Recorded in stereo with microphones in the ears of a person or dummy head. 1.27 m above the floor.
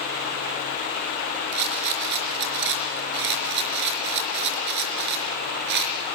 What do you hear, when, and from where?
1.5 s a rattle: 55° right (ahead or behind), 4 m